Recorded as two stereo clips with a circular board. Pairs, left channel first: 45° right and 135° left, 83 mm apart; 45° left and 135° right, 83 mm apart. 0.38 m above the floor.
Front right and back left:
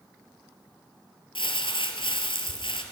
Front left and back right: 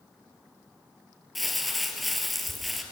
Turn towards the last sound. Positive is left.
turn(degrees=-45)